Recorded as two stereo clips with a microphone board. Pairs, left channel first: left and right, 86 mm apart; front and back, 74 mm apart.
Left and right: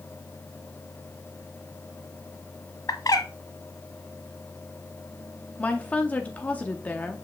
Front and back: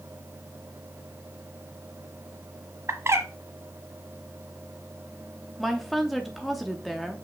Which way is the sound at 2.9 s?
130° left.